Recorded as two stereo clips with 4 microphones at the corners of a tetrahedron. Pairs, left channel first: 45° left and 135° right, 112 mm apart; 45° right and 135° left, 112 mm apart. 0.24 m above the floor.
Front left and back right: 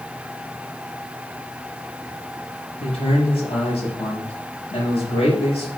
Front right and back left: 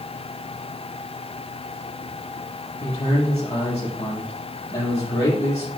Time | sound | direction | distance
2.8 | a man speaking | 10° left | 5 m